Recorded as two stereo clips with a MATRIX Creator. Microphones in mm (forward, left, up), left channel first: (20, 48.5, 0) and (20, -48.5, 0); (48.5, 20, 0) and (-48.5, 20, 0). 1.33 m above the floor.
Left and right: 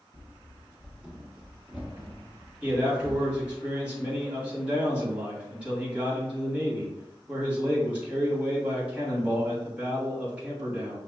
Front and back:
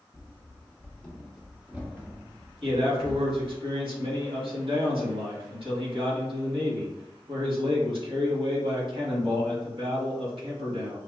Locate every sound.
0.1 s running footsteps: 20° right, 1.4 m; by 3.6 s 165° right, 1.9 m
2.6 s a man speaking: 165° right, 2 m